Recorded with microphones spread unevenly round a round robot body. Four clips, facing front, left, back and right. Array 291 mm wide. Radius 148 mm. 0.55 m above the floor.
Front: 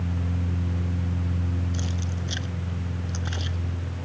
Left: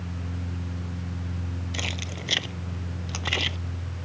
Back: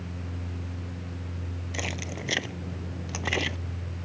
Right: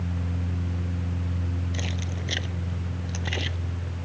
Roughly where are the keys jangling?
Behind.